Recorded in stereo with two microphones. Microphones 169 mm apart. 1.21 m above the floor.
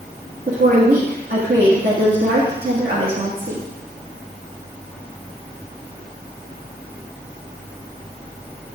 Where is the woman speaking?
65° right (ahead or behind), 1.8 m.